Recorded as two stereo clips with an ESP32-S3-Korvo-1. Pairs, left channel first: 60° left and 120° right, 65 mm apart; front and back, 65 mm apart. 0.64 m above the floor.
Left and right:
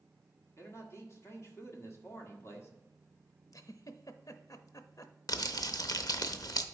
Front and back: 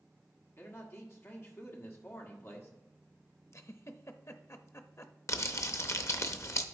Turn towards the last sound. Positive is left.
turn(degrees=40)